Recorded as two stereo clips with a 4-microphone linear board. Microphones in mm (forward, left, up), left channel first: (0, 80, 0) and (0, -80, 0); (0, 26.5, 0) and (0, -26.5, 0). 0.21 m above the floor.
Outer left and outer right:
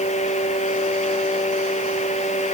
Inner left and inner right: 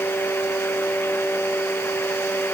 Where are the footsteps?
No footsteps in this recording.